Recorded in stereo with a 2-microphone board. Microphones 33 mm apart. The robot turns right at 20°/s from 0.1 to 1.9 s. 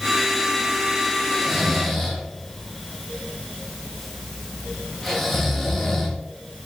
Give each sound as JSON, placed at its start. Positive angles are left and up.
{"t": 1.3, "sound": "snoring", "side_deg": -5, "distance_m": 0.8}